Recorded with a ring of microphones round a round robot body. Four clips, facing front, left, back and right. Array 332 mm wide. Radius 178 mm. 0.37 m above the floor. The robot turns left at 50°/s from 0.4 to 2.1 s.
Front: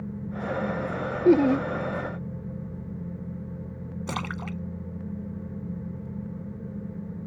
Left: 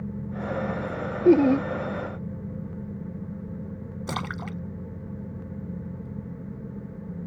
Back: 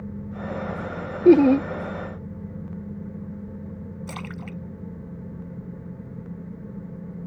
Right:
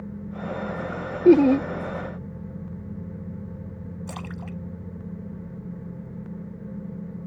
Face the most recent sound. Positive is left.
turn(degrees=50)